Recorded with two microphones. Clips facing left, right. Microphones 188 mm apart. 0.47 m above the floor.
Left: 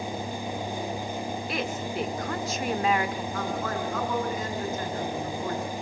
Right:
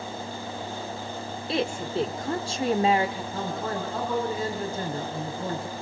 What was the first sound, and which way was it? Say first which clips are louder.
A woman speaking: right 8 dB; 30° right (ahead or behind).